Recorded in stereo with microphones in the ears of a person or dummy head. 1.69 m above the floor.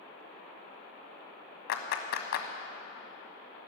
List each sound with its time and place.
1.7 s a clap: 55° left (ahead or behind), 1.3 m